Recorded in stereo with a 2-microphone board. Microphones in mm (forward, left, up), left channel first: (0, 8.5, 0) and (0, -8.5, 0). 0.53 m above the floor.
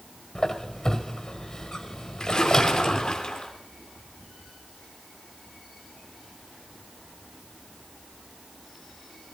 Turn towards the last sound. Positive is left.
turn(degrees=55)  # may be behind; listen again after turning